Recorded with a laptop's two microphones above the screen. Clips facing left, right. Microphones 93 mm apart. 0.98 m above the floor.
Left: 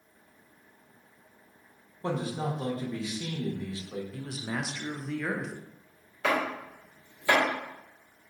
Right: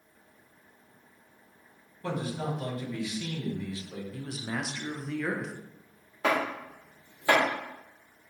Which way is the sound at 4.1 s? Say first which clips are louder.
Right 3 dB; centre (ahead or behind).